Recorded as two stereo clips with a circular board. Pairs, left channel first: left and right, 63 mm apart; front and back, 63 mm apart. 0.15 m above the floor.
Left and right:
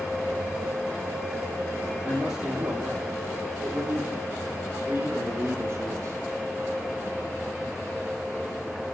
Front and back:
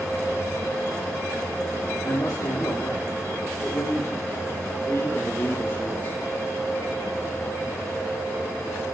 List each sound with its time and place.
2.0 s a man speaking: 15° right, 6 m; by 6.2 s 50° right, 5 m